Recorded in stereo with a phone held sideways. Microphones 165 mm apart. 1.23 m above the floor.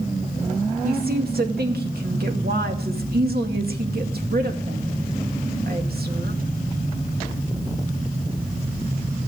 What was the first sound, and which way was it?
A woman speaking, 70° right (ahead or behind).